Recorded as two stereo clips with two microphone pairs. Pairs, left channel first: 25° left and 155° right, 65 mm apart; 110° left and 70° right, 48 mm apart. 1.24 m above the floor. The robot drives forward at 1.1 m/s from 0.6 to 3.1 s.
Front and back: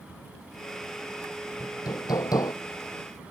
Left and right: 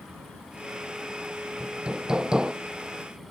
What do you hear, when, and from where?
1.6 s hammering: 5° left